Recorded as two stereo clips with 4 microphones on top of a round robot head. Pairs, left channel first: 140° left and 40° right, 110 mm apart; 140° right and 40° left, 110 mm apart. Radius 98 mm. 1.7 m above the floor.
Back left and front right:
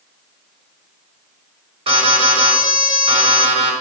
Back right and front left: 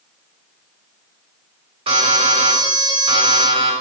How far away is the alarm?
About 4 m.